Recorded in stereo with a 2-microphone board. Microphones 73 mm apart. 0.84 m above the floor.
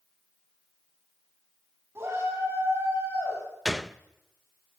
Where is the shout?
40° right (ahead or behind), 7 m; by 3.4 s 45° right (ahead or behind), 7.5 m.